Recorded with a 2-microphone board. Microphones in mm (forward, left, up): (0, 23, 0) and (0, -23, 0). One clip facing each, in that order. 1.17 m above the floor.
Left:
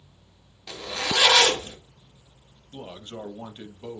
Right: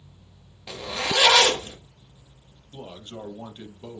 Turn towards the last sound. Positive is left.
turn(degrees=25)  # may be behind; listen again after turning